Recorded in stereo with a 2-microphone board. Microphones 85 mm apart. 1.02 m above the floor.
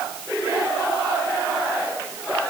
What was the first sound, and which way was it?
Only background noise.